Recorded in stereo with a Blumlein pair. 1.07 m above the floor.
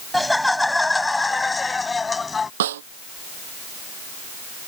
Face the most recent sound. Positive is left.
turn(degrees=-60)